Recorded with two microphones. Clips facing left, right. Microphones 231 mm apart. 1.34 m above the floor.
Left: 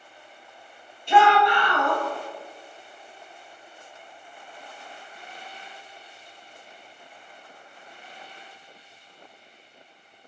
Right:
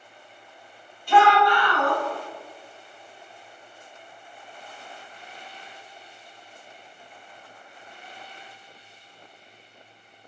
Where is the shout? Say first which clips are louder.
Even; 25° left (ahead or behind), 1.7 m.